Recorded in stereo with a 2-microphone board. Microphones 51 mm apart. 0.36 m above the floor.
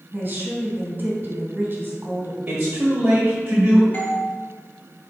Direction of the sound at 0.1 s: 35° right (ahead or behind).